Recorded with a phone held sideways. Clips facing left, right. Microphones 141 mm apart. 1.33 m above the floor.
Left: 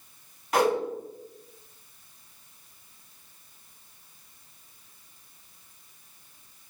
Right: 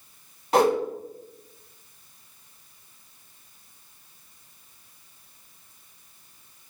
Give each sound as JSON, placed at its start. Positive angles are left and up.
{"t": 0.5, "sound": "a whoosh", "side_deg": -25, "distance_m": 2.0}